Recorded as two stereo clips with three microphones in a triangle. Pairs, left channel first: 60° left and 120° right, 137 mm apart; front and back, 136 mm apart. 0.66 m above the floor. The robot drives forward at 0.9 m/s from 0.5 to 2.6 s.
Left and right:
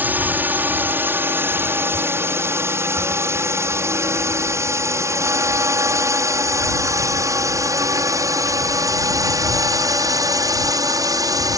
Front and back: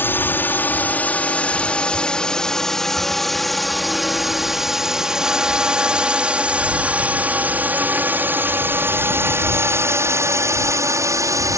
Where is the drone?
60° right; by 11.6 s 145° right.